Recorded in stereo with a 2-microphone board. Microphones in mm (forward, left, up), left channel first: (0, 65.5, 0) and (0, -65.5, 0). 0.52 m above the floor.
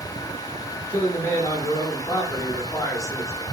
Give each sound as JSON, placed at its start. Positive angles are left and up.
{"t": 0.9, "sound": "a man speaking", "side_deg": 20, "distance_m": 1.2}